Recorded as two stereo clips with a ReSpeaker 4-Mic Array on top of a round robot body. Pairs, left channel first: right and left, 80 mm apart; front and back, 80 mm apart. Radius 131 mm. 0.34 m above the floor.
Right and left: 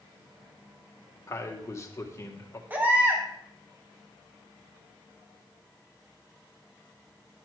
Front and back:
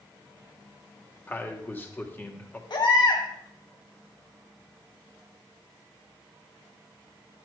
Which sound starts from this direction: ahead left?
A baby crying, at 2.7 s.